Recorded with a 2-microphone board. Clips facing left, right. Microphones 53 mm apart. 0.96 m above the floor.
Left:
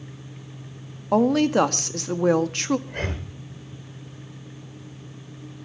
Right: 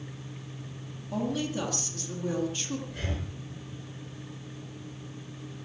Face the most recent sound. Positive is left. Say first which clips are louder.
# left 6 dB
turn(degrees=55)  # may be behind; listen again after turning